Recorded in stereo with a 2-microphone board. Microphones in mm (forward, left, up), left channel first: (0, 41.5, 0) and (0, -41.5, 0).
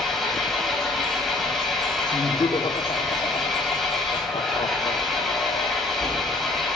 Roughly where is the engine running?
Centre.